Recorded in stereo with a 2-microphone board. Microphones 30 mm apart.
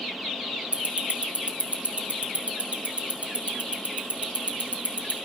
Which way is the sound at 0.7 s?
45° right (ahead or behind).